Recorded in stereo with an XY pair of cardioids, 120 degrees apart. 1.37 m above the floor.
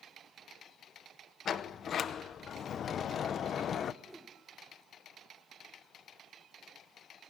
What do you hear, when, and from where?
1.4 s a sliding door: 50° left, 0.9 m
4.0 s a whoosh: straight ahead, 1.9 m